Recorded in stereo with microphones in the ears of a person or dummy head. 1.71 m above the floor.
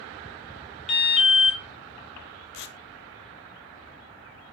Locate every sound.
0.9 s an alarm: 35° left (ahead or behind), 1.9 m
2.5 s tearing paper: 60° left (ahead or behind), 0.5 m